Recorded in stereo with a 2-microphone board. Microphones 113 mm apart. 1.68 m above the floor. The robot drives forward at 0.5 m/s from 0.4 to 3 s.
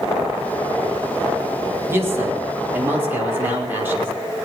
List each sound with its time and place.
1.9 s a man speaking: 20° right (ahead or behind), 3 m